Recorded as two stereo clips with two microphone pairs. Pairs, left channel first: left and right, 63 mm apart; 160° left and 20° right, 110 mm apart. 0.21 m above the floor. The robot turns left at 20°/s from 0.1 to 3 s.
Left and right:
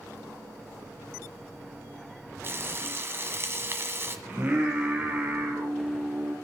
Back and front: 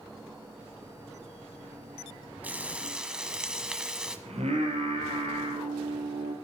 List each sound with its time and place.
2.4 s frying: 85° right, 1.7 m; by 4.2 s 100° right, 1.7 m
4.3 s singing: 30° right, 4 m